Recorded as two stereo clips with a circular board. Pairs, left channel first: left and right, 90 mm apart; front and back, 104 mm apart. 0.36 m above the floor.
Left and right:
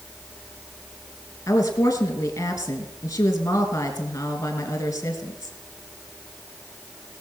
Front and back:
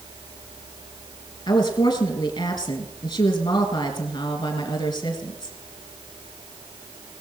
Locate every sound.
1.5 s a woman speaking: 35° left, 2.5 m